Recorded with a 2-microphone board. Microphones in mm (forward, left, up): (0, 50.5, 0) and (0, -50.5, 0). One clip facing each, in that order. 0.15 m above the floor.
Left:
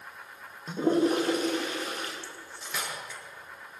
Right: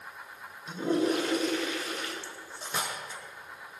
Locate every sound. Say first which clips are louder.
0.7 s a toilet flushing: left 3 dB; 35° left (ahead or behind), 7.5 m
2.2 s cutlery clinking: right 1 dB; 30° right (ahead or behind), 5 m